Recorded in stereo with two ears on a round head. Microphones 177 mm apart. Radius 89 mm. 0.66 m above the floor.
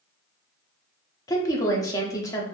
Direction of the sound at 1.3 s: 20° left (ahead or behind).